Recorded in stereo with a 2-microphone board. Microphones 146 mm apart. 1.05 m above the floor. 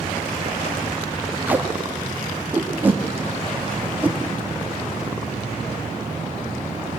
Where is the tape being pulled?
10° right (ahead or behind), 1.8 m.